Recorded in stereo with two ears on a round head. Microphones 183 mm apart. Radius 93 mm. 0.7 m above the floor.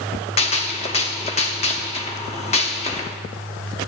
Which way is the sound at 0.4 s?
30° left (ahead or behind).